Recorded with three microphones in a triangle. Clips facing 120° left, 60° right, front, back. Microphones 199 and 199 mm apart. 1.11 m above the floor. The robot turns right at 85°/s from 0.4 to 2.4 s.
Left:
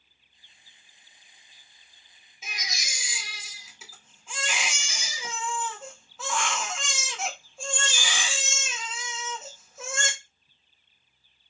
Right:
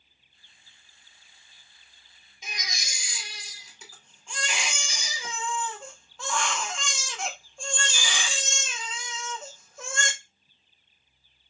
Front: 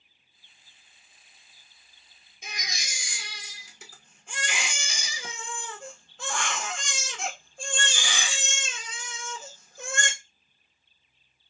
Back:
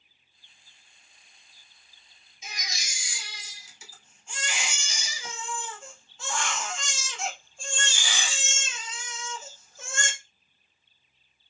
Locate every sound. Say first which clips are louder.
2.4 s a baby crying: even, front 1 dB; 35° left, 0.9 m